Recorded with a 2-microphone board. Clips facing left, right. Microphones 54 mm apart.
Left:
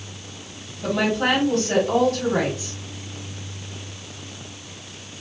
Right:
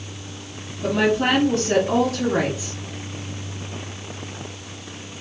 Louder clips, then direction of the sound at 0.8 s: Right 2 dB; 5° right (ahead or behind).